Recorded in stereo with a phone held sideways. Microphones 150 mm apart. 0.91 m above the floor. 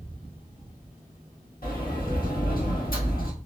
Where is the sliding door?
75° left (ahead or behind), 1.1 m.